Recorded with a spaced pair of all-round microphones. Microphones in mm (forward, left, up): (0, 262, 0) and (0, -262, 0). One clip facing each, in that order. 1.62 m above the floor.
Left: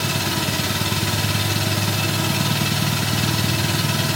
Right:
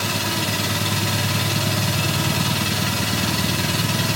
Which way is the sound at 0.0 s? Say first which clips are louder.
Left 1 dB; 10° left (ahead or behind).